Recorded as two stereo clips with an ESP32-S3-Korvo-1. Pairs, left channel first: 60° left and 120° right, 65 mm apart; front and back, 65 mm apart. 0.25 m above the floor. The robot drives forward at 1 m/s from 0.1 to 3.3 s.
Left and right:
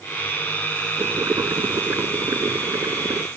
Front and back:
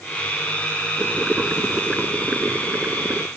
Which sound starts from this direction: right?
Boiling, at 1.0 s.